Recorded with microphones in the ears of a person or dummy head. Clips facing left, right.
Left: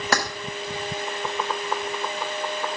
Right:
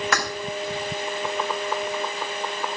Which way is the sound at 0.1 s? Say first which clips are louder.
Left 4 dB; 30° left (ahead or behind).